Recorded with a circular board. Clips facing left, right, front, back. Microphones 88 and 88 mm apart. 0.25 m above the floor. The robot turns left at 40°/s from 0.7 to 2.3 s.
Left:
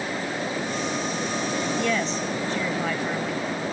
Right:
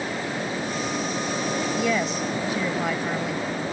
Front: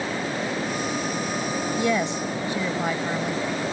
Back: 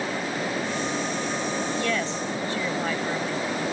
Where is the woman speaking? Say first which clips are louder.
Right 1 dB, front 3 dB; 10° right; by 3.4 s 30° right.